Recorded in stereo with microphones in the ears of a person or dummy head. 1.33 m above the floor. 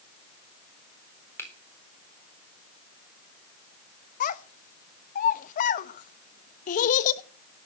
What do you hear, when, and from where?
1.4 s a finger snap: 10° left (ahead or behind), 3.5 m
4.2 s a child speaking: 50° left (ahead or behind), 1.1 m